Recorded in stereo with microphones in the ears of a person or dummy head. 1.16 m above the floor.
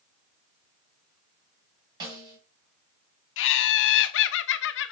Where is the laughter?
75° left (ahead or behind), 1.0 m.